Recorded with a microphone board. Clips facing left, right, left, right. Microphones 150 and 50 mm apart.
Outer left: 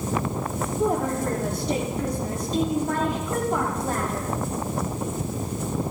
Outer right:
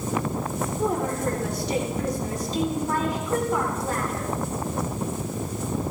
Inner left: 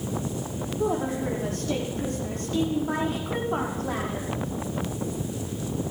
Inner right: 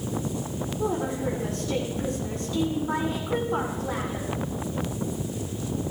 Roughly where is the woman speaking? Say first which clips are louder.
Outer left 2 dB, inner left 1 dB; left.